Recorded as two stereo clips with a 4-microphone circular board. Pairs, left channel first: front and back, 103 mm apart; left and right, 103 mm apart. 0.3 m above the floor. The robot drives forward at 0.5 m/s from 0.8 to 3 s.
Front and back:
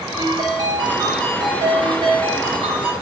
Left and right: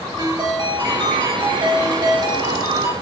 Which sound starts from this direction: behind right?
A ringtone, at 0.2 s.